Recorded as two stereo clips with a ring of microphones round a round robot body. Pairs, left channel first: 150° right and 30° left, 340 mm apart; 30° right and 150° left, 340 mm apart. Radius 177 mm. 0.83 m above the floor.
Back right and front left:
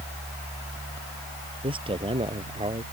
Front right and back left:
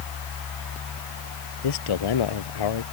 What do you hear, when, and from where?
1.6 s a man speaking: 45° right